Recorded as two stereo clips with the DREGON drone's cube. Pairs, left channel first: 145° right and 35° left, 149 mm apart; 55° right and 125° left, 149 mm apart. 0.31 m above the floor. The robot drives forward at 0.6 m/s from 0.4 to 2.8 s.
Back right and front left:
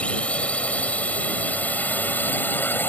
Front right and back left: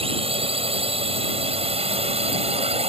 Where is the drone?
135° left; by 2.9 s 140° left.